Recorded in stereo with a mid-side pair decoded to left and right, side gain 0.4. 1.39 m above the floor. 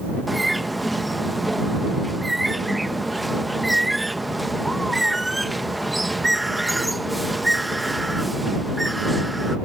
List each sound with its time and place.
0.3 s a bird: 10° right